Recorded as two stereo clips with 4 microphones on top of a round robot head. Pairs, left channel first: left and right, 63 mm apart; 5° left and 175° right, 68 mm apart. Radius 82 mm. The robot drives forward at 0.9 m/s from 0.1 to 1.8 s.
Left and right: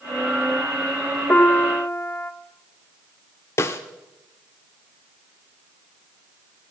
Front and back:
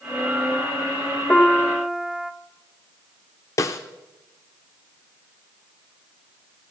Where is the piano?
55° left, 1.0 m; by 2.3 s 110° left, 0.9 m.